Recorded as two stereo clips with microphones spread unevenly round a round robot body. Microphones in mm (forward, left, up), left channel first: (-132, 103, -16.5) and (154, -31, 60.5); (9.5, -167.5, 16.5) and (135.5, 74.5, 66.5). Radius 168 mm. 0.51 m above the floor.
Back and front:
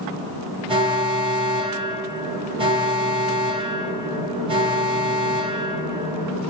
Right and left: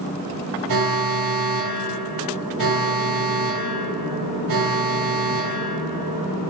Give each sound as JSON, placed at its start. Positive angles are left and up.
{"t": 0.7, "sound": "an alarm", "azimuth_deg": 50, "distance_m": 1.9}